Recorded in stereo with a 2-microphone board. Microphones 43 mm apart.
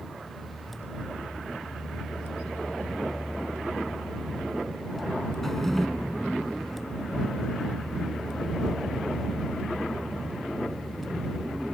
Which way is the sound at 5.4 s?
5° left (ahead or behind).